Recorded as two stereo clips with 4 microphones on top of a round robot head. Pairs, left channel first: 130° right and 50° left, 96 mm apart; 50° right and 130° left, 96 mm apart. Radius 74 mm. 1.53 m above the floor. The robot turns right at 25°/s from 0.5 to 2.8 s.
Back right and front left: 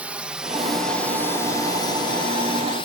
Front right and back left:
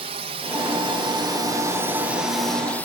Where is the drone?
130° left; by 2.9 s 120° right.